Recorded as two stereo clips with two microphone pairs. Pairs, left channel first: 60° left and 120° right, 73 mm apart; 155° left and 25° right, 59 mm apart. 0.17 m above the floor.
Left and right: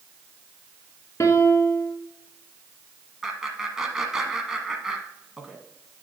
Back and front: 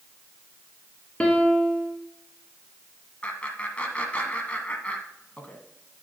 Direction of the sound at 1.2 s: 90° left.